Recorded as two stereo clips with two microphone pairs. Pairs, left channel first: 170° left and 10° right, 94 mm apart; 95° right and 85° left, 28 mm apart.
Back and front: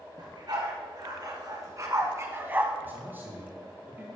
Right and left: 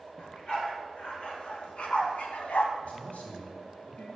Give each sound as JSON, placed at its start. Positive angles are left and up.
{"t": 0.2, "sound": "a dog barking", "azimuth_deg": -45, "distance_m": 3.0}
{"t": 2.8, "sound": "a man speaking", "azimuth_deg": -75, "distance_m": 3.5}